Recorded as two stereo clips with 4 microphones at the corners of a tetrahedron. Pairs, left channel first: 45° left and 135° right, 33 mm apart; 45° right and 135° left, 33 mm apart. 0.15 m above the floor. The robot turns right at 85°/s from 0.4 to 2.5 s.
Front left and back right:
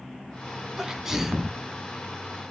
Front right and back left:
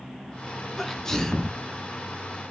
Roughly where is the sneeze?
Right.